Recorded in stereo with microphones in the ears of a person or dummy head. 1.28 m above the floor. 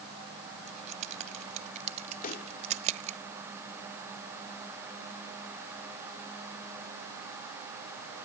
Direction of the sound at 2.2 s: 45° left (ahead or behind).